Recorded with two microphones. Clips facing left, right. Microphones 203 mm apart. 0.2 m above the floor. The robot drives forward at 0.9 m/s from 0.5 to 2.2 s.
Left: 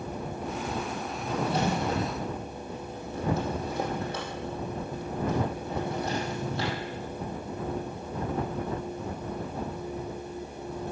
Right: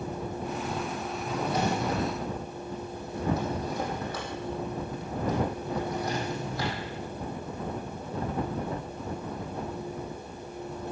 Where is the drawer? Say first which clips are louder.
Left 1 dB; 35° left (ahead or behind), 4 m; by 6.8 s 25° left (ahead or behind), 5 m.